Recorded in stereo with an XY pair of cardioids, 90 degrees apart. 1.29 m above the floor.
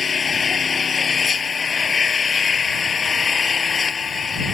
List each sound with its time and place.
0.0 s an engine running: 40° left